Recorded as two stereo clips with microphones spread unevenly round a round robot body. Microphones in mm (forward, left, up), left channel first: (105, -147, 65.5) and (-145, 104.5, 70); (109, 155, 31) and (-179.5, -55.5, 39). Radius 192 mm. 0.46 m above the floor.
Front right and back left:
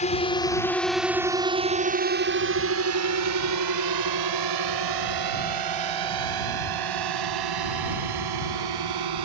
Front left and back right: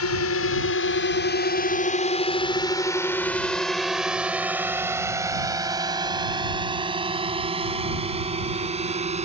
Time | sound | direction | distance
0.0 | a drone | 15° left | ?